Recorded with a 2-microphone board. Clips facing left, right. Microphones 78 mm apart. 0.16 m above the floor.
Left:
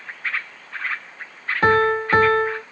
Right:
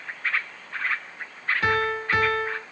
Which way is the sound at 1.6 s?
40° left (ahead or behind).